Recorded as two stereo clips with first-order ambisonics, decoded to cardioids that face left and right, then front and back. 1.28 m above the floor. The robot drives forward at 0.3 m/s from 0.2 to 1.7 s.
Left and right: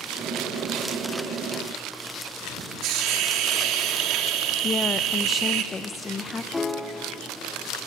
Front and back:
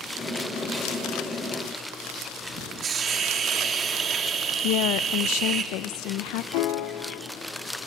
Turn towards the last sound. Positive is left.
turn(degrees=15)